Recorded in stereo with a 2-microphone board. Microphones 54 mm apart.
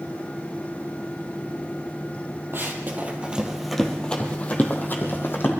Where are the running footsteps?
45° right (ahead or behind), 2.5 m; by 5.5 s 45° left (ahead or behind), 3.5 m.